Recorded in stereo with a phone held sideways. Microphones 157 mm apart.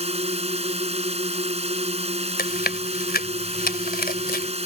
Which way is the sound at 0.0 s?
40° right (ahead or behind).